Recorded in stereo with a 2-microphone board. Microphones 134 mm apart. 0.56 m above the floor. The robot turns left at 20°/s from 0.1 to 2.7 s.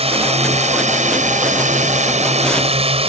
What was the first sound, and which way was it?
A drone, 45° right (ahead or behind).